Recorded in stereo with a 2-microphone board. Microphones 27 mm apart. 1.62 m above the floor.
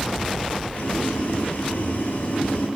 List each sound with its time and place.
0.7 s boiling: 80° left, 9.5 m